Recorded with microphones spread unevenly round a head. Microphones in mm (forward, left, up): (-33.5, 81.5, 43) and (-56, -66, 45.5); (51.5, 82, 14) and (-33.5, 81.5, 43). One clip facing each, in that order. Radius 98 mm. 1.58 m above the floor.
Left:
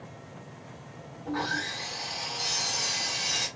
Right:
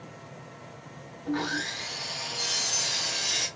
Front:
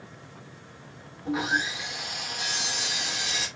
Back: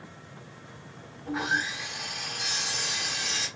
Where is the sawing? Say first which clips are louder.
Right 2 dB, front 2 dB; 45° right, 1.3 m.